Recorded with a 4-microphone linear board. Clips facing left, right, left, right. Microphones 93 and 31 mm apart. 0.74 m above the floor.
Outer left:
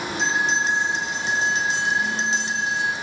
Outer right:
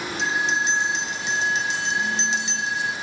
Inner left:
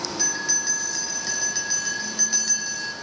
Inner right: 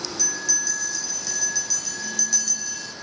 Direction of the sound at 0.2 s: 35° left (ahead or behind).